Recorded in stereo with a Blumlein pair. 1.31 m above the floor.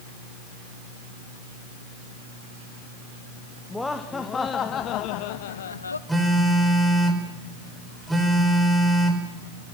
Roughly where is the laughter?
Ahead.